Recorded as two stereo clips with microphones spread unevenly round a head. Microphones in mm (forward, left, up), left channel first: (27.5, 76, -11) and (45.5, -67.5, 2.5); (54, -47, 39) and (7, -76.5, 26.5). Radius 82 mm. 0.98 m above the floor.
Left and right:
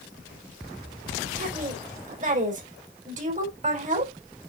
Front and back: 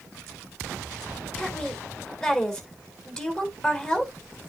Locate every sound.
1.4 s a woman speaking: 45° right, 3 m